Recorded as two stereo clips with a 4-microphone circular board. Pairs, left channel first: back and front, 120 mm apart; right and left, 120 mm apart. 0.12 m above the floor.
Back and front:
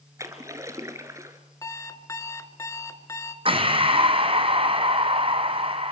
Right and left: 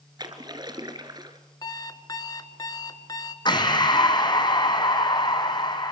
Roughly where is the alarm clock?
Behind right.